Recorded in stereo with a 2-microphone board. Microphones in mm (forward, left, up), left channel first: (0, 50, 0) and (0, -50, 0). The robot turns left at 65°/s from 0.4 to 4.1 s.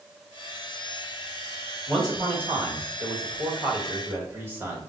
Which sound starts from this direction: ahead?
A man speaking, at 1.9 s.